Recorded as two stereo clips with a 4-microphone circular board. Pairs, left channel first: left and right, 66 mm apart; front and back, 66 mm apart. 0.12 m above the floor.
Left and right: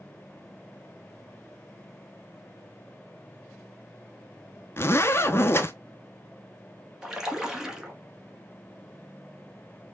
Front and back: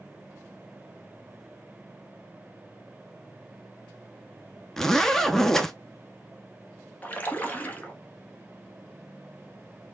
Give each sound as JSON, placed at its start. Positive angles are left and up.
{"t": 4.8, "sound": "a zipper", "azimuth_deg": 80, "distance_m": 0.5}
{"t": 7.0, "sound": "a splash", "azimuth_deg": -20, "distance_m": 0.9}